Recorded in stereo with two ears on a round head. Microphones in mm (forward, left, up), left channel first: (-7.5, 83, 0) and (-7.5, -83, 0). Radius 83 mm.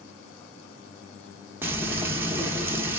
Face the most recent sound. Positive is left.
turn(degrees=-10)  # may be behind; listen again after turning